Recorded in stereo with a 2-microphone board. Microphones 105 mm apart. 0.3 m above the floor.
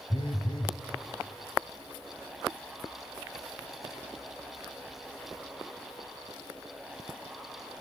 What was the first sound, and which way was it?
A phone buzzing, 50° left (ahead or behind).